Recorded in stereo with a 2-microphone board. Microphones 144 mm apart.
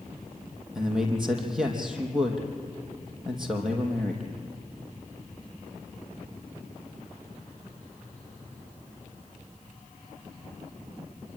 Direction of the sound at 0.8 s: 5° right (ahead or behind).